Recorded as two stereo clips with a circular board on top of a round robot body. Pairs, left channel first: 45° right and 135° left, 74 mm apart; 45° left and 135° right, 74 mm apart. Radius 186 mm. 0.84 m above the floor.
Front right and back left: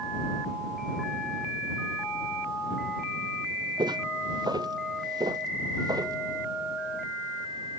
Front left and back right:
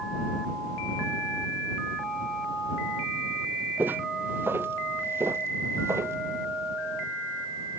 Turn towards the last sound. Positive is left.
turn(degrees=170)